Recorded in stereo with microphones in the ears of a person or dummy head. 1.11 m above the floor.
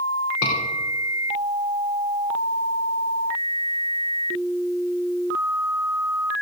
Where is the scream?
75° left (ahead or behind), 4 m.